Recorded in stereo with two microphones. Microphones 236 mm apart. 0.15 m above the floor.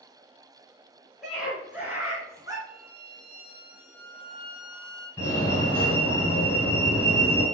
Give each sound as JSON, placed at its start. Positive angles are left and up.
{"t": 1.2, "sound": "a scream", "side_deg": 0, "distance_m": 3.0}
{"t": 2.7, "sound": "a violin", "side_deg": -40, "distance_m": 3.0}
{"t": 5.2, "sound": "a fire alarm", "side_deg": 10, "distance_m": 3.5}